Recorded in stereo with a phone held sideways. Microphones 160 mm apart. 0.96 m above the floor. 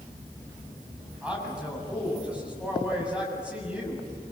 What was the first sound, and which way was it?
A man speaking, 5° right (ahead or behind).